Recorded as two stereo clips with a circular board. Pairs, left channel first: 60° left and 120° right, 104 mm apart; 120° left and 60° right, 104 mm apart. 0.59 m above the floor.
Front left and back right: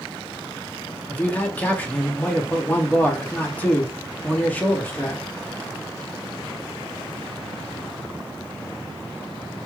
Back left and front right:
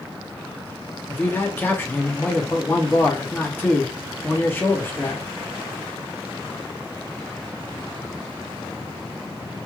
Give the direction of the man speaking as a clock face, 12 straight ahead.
9 o'clock.